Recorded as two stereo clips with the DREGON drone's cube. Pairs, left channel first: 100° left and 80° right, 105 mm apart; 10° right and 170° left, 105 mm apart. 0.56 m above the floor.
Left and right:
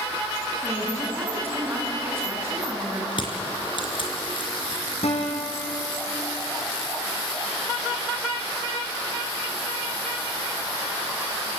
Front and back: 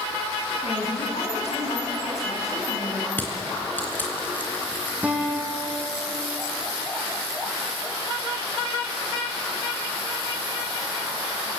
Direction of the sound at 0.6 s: 10° right.